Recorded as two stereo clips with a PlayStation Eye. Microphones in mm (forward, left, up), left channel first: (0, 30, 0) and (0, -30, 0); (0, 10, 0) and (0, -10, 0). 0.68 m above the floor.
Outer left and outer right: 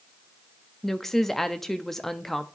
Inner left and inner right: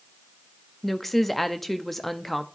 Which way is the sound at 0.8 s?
5° left (ahead or behind).